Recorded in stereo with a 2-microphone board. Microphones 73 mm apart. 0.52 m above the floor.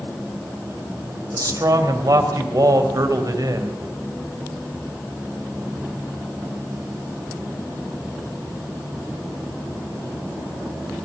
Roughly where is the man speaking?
Right.